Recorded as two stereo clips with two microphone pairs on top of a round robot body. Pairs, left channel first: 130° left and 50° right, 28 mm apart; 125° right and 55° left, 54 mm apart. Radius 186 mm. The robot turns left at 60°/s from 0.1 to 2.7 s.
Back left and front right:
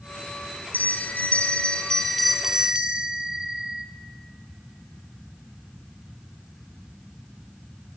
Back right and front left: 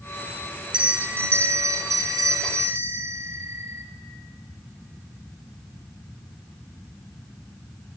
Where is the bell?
135° left, 0.6 m; by 3.9 s 15° left, 0.6 m.